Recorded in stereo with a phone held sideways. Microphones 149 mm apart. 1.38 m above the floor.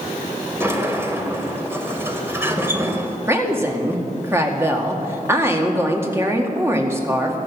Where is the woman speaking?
15° right (ahead or behind), 2 m.